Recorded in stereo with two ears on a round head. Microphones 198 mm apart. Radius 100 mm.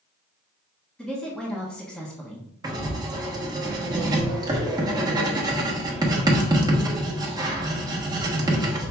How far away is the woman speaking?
About 1.0 m.